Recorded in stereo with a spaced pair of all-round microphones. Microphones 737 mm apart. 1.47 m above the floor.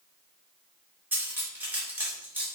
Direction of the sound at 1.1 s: 5° right (ahead or behind).